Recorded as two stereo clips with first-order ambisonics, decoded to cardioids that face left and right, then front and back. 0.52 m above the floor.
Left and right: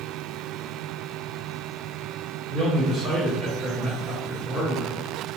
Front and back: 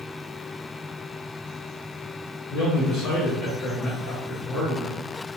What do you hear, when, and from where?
2.5 s a man speaking: 10° right, 1.2 m